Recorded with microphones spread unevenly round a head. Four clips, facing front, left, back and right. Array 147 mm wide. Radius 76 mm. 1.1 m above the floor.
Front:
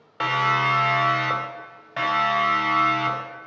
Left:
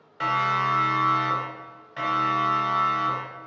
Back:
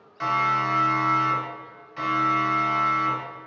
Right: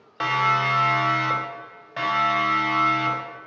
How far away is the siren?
About 3 m.